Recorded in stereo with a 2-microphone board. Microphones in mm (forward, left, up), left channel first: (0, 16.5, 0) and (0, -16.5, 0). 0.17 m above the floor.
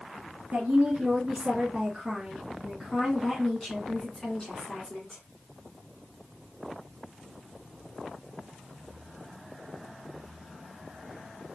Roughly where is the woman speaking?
Right.